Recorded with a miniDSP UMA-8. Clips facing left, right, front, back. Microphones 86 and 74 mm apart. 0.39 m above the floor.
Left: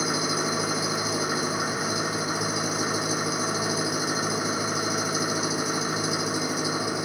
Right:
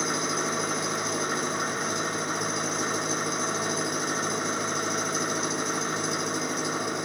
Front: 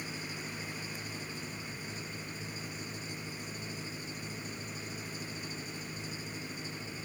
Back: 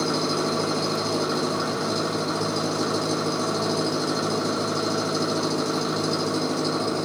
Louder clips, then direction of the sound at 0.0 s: Left 2 dB, back 18 dB; 175° left.